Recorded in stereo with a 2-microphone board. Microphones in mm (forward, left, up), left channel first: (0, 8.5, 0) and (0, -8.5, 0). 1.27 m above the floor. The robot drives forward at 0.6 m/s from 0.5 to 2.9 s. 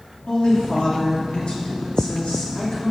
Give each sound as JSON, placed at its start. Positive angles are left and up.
{"t": 0.3, "sound": "a woman speaking", "side_deg": 90, "distance_m": 2.5}